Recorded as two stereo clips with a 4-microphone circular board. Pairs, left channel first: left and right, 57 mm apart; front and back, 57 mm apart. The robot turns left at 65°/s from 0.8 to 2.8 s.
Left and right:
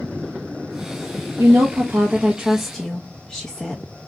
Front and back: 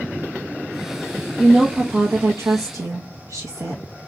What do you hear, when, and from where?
1.4 s a woman speaking: 100° right, 0.7 m; by 3.8 s 170° left, 0.7 m